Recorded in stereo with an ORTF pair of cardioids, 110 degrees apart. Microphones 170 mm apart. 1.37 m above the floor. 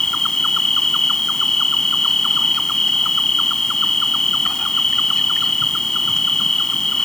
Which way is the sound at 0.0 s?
5° left.